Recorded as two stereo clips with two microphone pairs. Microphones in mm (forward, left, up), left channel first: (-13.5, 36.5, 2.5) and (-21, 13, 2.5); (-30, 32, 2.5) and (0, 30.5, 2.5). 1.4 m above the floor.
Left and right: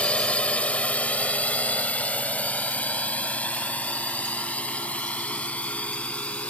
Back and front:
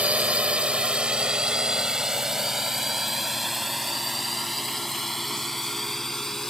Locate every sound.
0.0 s a drone: 40° left; by 6.5 s 100° left